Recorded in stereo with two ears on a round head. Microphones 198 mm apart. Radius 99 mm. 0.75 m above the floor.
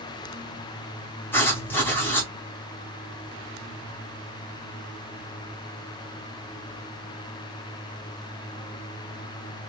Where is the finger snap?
No finger snap in this recording.